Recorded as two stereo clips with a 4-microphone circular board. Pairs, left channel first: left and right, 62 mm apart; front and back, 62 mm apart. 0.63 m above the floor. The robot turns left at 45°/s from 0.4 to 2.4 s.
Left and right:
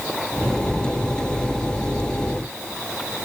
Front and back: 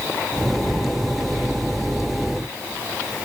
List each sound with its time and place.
Only background noise.